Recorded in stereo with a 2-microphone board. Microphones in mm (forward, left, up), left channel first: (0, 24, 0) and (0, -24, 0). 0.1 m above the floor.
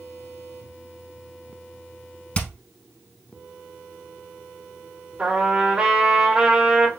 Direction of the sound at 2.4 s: 30° left (ahead or behind).